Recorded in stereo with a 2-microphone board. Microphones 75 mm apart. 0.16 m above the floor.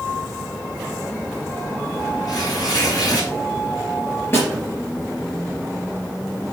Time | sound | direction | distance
2.3 | tearing paper | 55° left (ahead or behind) | 4 m
4.3 | a snare drum | 30° left (ahead or behind) | 3.5 m